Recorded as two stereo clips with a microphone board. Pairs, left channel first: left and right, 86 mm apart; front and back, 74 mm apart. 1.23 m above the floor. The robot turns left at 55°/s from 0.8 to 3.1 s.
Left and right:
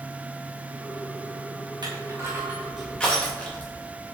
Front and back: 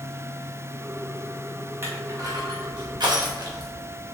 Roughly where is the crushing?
Behind right.